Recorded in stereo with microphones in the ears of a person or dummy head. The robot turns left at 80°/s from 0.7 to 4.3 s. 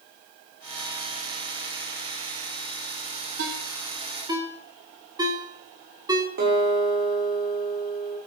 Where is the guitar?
50° right (ahead or behind), 5.5 m.